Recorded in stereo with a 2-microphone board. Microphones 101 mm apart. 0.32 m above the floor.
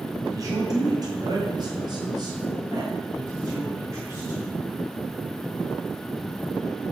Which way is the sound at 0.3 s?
35° right (ahead or behind).